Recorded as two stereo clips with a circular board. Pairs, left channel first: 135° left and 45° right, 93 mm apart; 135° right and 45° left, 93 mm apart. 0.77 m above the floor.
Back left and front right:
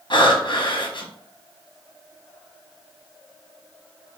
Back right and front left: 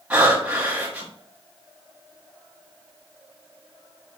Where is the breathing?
120° left, 1.0 m.